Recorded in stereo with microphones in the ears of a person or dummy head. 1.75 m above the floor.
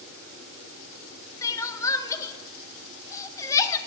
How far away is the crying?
About 0.9 m.